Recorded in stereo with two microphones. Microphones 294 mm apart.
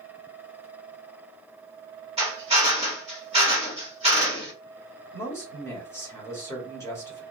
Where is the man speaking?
10° left (ahead or behind), 1.5 m.